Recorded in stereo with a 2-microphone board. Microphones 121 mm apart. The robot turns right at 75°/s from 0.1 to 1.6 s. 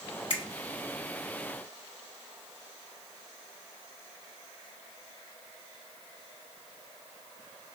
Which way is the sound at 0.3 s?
50° left (ahead or behind).